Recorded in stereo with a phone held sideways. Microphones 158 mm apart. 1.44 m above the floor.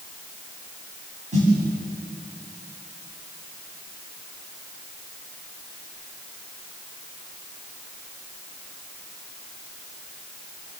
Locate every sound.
1.3 s a snare drum: 50° right (ahead or behind), 9.5 m